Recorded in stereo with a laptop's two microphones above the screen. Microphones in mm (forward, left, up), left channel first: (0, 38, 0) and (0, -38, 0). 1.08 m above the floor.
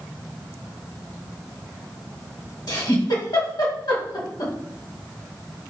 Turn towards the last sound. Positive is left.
turn(degrees=65)  # may be behind; listen again after turning